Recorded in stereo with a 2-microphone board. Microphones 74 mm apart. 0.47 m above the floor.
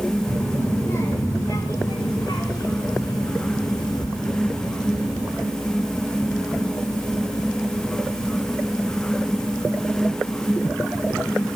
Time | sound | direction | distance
0.3 | a child speaking | 25° left (ahead or behind) | 2 m